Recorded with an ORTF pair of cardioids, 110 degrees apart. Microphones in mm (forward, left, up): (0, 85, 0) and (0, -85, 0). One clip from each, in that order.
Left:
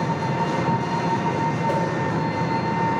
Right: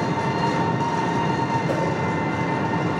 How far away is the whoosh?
About 0.7 m.